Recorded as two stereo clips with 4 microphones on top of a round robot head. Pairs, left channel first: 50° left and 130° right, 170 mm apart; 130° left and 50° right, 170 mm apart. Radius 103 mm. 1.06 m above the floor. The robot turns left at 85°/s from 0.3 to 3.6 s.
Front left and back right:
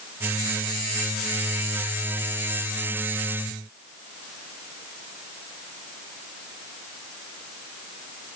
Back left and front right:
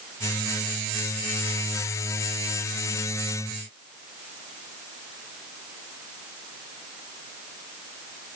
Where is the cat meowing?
I don't hear a cat meowing.